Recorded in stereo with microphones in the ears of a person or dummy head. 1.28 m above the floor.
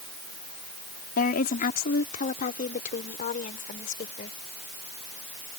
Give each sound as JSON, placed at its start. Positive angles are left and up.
{"t": 1.2, "sound": "a woman speaking", "side_deg": 55}